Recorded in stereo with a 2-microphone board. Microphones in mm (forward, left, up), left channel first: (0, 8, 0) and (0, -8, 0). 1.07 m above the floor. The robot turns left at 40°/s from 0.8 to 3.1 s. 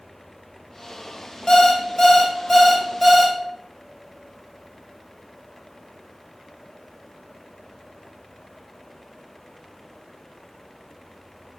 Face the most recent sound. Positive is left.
turn(degrees=0)